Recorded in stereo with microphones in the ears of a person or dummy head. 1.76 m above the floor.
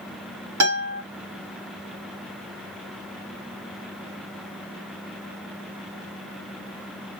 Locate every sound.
0.6 s a guitar: 85° right, 2 m